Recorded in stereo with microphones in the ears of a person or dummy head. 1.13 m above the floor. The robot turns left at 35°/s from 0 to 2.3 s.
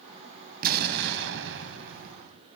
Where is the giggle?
I don't hear a giggle.